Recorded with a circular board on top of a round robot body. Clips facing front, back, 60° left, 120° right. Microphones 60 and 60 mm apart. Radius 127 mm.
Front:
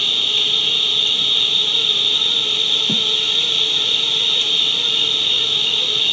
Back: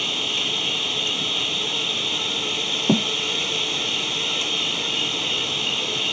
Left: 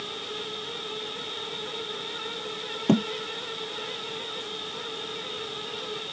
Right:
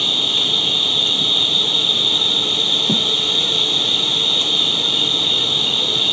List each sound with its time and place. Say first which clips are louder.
0.0 s an insect: front 4 dB, right 12 dB; 115° right
2.9 s a thud: back 9 dB, left 2 dB; 130° left